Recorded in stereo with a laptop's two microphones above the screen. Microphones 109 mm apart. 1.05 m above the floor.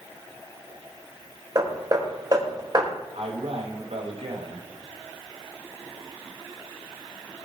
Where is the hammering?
40° right (ahead or behind), 4.5 m.